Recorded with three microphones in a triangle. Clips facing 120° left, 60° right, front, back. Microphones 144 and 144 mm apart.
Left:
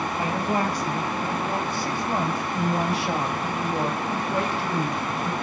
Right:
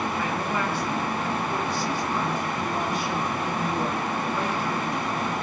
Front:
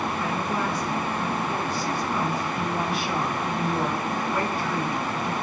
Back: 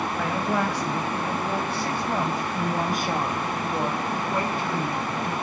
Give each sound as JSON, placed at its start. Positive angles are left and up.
{"t": 0.2, "sound": "a woman speaking", "azimuth_deg": 175, "distance_m": 3.5}